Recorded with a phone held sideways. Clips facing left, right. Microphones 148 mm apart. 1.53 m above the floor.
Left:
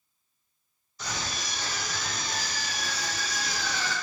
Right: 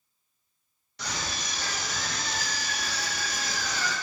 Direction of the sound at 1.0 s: 75° right (ahead or behind).